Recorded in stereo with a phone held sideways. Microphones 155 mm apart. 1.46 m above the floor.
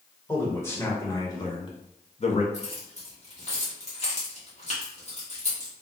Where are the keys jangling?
45° left (ahead or behind), 1.2 m.